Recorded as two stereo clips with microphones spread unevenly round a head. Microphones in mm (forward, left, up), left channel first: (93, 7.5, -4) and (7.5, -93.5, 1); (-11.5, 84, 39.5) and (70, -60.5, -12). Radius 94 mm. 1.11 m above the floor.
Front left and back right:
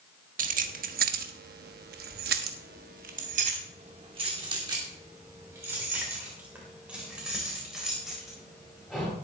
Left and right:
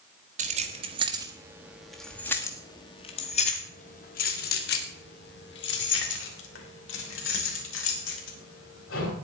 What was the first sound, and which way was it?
Keys jangling, 115° right.